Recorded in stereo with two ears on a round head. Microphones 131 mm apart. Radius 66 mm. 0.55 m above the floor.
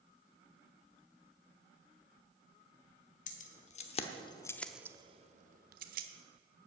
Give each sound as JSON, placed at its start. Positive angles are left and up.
{"t": 3.3, "sound": "keys jangling", "side_deg": 55, "distance_m": 1.4}